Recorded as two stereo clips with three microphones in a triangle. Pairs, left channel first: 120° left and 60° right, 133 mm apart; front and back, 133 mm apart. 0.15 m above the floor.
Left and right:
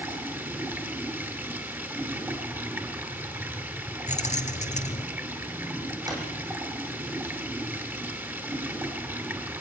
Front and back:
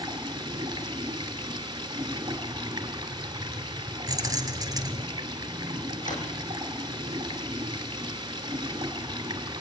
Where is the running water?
130° right, 2.5 m.